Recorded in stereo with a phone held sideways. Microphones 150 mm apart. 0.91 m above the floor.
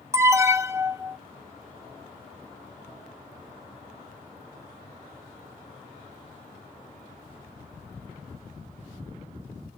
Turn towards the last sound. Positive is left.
turn(degrees=-20)  # may be behind; listen again after turning